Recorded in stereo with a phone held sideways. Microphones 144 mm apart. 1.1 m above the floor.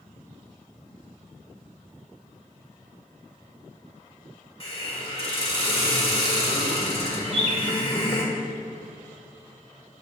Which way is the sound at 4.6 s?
40° left (ahead or behind).